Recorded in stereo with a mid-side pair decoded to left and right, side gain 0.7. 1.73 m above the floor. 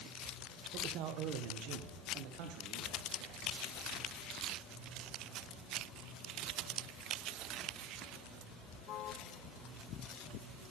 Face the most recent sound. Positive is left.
turn(degrees=-80)